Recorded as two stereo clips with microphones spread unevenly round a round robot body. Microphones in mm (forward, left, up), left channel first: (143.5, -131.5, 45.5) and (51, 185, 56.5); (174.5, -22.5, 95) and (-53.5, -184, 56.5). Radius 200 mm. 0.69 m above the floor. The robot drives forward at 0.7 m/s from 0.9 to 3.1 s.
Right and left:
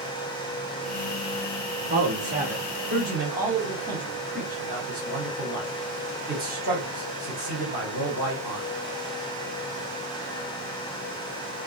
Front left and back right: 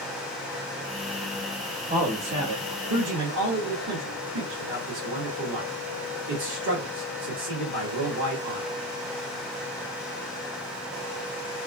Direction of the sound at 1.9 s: 165° left.